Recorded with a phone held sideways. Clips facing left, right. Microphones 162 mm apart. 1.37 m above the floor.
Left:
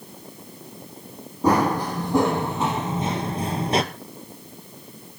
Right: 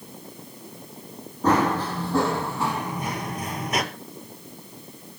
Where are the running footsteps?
10° left (ahead or behind), 3 m; by 3.8 s 30° left (ahead or behind), 1.5 m.